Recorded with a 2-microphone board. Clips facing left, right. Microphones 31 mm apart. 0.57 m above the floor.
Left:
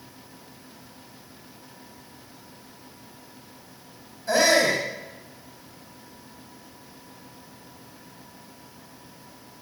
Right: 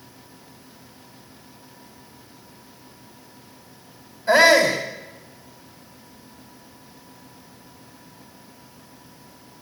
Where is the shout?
30° right (ahead or behind), 4 m.